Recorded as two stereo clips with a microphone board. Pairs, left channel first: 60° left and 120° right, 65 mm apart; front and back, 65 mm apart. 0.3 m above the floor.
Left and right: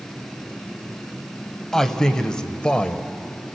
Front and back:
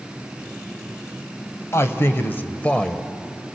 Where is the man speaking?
15° right, 1.5 m; by 3.5 s 110° left, 1.1 m.